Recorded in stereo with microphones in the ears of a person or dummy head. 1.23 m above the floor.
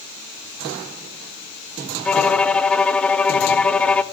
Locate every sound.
2.0 s a violin: 15° left (ahead or behind), 0.5 m